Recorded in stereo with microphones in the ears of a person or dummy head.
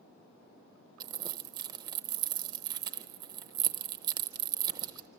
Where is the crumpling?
25° right (ahead or behind), 0.7 m.